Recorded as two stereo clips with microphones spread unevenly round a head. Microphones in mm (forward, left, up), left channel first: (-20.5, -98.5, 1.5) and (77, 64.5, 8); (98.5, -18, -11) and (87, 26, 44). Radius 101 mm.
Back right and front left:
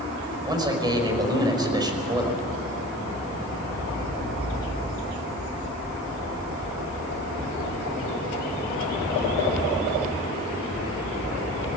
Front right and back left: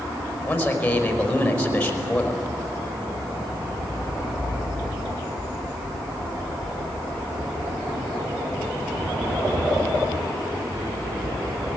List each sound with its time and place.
0.5 s a man speaking: 10° right, 5 m